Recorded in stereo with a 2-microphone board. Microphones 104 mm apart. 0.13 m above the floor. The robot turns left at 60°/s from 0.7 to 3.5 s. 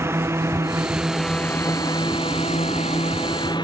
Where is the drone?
25° right (ahead or behind); by 3.6 s 45° left (ahead or behind).